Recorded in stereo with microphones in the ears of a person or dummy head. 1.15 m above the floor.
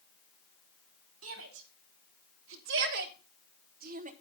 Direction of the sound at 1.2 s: 80° right.